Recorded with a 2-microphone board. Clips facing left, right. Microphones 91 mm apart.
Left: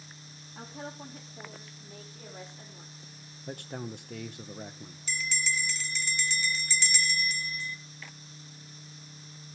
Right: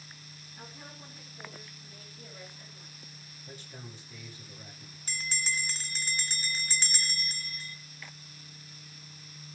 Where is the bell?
45° right (ahead or behind), 0.7 m.